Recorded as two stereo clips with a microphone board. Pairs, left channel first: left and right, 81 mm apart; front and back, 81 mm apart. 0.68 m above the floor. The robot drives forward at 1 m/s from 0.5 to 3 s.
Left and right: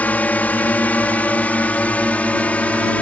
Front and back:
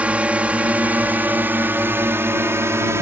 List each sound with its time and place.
0.0 s a drone: 130° left; by 3.0 s 155° left